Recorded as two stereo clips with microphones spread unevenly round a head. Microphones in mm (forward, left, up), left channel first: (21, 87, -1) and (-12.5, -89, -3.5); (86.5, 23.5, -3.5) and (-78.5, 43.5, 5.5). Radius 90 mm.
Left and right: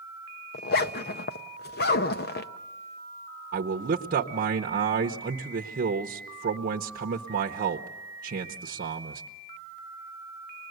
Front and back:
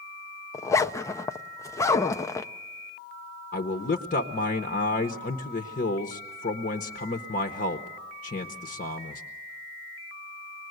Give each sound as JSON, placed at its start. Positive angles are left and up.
{"t": 0.5, "sound": "a zipper", "azimuth_deg": 65, "distance_m": 0.7}
{"t": 3.5, "sound": "a man speaking", "azimuth_deg": -55, "distance_m": 0.9}